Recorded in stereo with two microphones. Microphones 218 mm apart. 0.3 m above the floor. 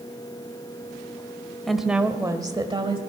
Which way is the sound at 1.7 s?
Centre (ahead or behind).